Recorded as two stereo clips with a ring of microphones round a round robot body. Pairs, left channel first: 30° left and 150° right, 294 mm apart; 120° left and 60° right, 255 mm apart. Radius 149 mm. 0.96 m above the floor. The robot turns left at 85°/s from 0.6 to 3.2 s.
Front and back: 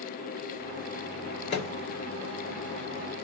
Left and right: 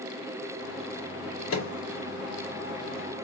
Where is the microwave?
90° left, 2.5 m; by 1.7 s 70° left, 2.5 m.